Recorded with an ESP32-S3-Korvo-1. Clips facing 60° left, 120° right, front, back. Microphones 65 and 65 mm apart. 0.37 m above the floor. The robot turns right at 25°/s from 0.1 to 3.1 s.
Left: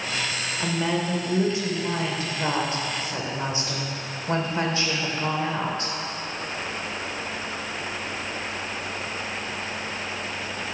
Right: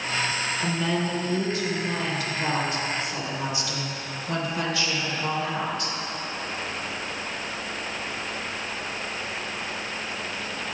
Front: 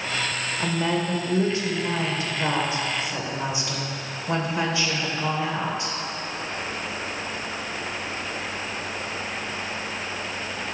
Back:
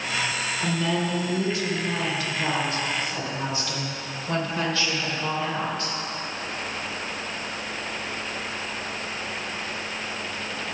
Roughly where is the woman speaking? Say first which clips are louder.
Left 2 dB, front 1 dB; ahead.